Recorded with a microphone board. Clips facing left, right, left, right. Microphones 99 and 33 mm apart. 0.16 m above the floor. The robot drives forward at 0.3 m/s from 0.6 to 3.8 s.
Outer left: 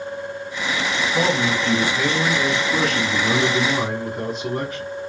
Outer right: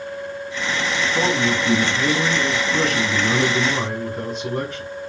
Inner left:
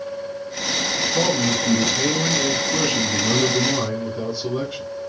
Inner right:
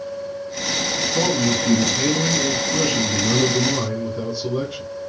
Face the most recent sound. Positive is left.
turn(degrees=0)  # may be behind; listen again after turning